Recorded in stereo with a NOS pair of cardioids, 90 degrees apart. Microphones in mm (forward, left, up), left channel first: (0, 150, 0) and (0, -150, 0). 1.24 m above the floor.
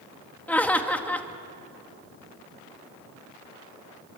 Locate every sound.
0.5 s laughter: 5° left, 2 m